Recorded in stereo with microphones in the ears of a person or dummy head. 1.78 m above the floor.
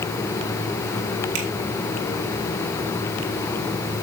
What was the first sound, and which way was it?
A finger snap, 75° right (ahead or behind).